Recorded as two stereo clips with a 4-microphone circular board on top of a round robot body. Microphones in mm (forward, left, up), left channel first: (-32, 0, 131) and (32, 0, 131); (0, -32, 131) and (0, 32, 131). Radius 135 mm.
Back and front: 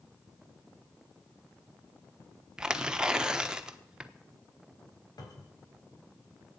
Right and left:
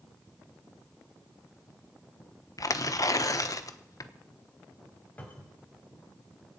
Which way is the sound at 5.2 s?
155° right.